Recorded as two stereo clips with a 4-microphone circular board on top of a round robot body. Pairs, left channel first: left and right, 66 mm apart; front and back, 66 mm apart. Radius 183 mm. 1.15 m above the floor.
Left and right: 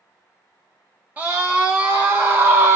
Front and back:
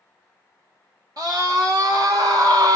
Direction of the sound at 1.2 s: 155° right.